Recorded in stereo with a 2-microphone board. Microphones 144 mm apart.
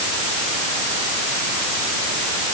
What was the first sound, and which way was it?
Only background noise.